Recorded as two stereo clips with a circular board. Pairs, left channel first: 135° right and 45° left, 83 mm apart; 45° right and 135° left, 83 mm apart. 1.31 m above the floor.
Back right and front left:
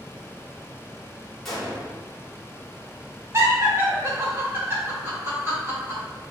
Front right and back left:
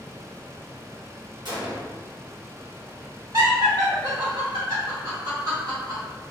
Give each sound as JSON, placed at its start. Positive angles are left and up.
{"t": 1.4, "sound": "a gunshot", "azimuth_deg": 140, "distance_m": 1.5}
{"t": 3.3, "sound": "laughter", "azimuth_deg": 100, "distance_m": 1.8}